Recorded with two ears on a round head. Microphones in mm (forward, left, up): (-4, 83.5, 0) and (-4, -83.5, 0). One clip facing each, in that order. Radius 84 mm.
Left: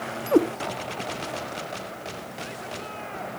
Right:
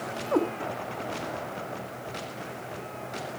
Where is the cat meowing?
35° left (ahead or behind), 0.9 m.